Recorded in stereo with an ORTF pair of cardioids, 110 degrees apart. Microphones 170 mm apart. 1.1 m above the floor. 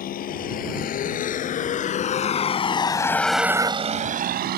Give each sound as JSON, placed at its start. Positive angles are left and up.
{"t": 0.0, "sound": "a vehicle", "azimuth_deg": 60}